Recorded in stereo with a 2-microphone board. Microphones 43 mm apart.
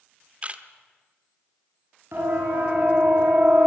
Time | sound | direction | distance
0.4 | a camera shutter | 30° right (ahead or behind) | 1.1 m
2.1 | a siren | 60° right (ahead or behind) | 8 m